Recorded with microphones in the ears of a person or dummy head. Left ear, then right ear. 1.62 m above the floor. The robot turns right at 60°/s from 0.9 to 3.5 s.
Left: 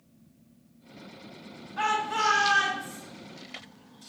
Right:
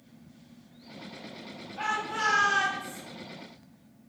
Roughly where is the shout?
Behind left.